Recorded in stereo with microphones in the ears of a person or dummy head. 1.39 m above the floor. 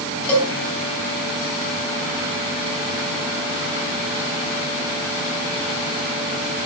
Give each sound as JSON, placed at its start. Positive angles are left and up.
{"t": 0.3, "sound": "a cowbell", "side_deg": 0, "distance_m": 6.0}